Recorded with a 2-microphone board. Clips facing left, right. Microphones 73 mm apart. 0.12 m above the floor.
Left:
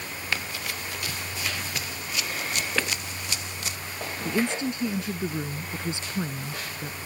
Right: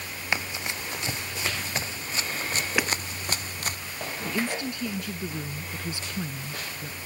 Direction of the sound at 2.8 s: 10° right (ahead or behind).